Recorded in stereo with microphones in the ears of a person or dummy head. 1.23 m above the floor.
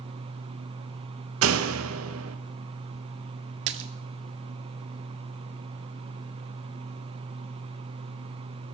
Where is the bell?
I don't hear a bell.